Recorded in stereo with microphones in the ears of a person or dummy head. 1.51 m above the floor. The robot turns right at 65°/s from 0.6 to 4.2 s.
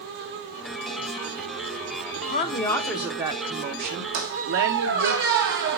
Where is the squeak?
60° right (ahead or behind), 1.3 m.